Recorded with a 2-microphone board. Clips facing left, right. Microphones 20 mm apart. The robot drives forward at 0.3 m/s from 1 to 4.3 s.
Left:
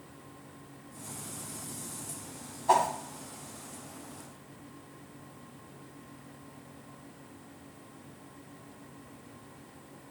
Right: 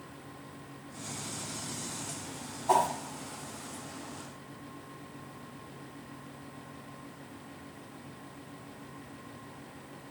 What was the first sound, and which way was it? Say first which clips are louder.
A whoosh: left 1 dB; 25° left (ahead or behind).